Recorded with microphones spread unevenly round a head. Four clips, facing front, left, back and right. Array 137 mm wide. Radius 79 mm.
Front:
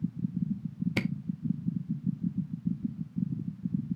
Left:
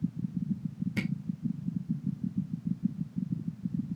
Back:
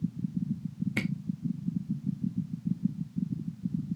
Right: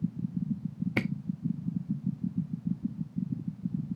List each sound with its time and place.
1.0 s a camera shutter: 75° right, 0.7 m